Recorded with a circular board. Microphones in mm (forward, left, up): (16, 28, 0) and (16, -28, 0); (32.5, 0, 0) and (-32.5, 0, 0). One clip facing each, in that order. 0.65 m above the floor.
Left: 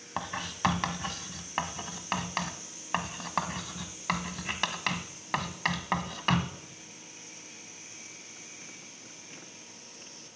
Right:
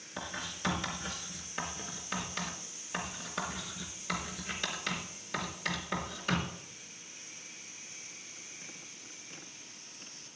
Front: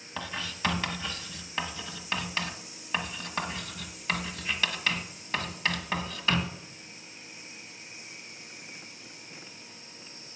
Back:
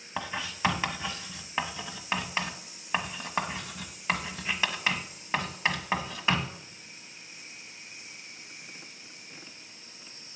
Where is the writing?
110° left, 1.4 m.